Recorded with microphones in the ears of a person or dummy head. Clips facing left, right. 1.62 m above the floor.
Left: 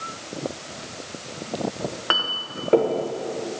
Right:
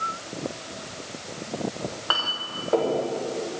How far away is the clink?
About 0.7 m.